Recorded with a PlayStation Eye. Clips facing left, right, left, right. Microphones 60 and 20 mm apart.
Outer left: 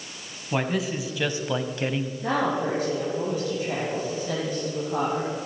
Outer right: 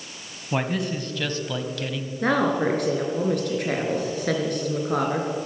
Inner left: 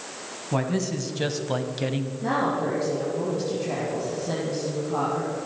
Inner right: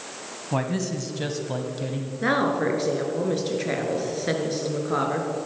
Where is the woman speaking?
65° right (ahead or behind), 3.5 m.